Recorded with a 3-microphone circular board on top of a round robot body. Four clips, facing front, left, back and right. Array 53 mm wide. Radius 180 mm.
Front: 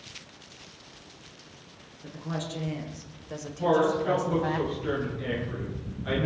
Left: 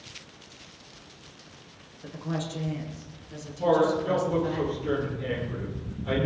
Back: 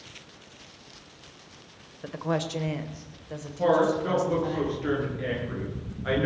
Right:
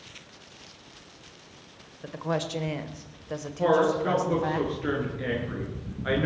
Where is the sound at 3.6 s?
120° right, 7.5 m.